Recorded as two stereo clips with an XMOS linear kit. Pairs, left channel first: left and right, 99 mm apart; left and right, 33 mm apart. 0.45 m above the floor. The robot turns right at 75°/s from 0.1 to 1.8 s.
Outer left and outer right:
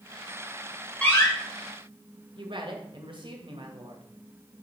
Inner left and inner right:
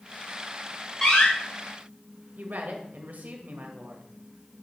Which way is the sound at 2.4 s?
55° right (ahead or behind).